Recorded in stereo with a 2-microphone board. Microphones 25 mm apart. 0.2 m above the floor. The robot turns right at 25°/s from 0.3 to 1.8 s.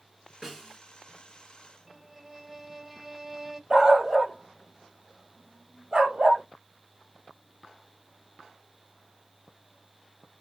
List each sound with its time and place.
0.4 s a snare drum: 15° right (ahead or behind), 1.5 m; by 0.8 s 5° right (ahead or behind), 1.5 m
1.9 s a violin: 5° right (ahead or behind), 0.5 m
3.7 s a dog barking: 30° right (ahead or behind), 1.4 m